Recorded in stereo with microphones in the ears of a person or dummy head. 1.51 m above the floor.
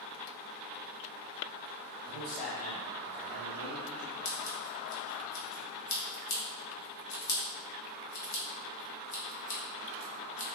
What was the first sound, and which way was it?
A man speaking, 25° left (ahead or behind).